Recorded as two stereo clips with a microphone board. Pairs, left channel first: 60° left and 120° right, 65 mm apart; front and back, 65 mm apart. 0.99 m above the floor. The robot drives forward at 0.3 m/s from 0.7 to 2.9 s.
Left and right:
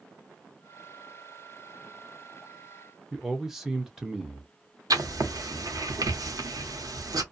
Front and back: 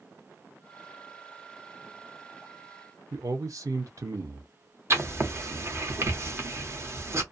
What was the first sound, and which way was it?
A man speaking, 155° left.